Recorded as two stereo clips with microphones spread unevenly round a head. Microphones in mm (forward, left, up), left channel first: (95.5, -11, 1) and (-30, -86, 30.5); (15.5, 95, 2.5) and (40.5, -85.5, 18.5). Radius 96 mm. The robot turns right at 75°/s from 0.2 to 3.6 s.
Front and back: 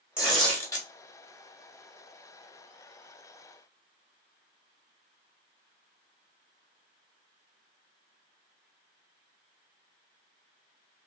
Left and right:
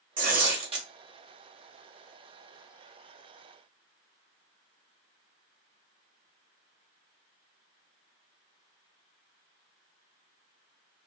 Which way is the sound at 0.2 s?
80° right.